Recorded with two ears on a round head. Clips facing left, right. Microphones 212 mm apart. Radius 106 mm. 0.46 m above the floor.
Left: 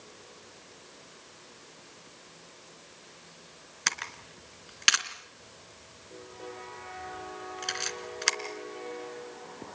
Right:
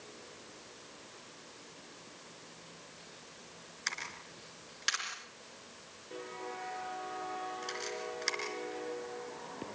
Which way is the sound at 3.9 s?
75° left (ahead or behind).